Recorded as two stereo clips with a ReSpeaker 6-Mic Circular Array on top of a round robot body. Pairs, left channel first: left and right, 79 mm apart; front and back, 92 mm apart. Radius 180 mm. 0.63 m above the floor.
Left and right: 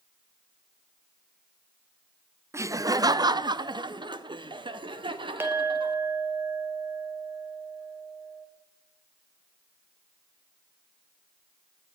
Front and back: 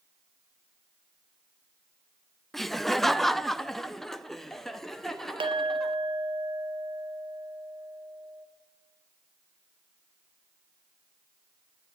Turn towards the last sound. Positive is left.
turn(degrees=-155)